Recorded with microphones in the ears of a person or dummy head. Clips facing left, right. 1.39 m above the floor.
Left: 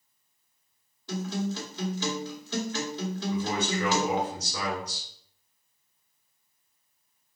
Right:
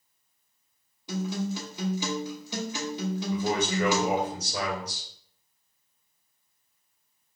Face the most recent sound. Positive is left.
turn(degrees=-35)  # may be behind; listen again after turning